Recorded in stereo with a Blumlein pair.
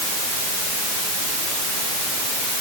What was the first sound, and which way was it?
Only background noise.